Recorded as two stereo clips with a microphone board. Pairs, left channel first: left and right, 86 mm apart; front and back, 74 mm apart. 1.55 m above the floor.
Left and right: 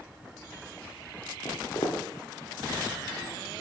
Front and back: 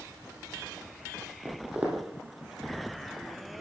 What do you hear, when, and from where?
1.4 s footsteps: 115° left, 2.5 m